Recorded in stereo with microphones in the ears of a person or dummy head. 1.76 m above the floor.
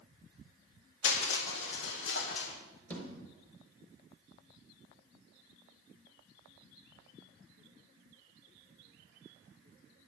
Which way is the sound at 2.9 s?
10° left (ahead or behind).